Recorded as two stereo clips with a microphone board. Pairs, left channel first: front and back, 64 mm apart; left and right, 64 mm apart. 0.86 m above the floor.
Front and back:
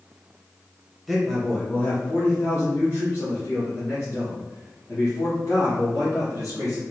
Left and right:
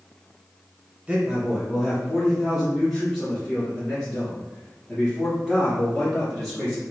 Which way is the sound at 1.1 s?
95° right.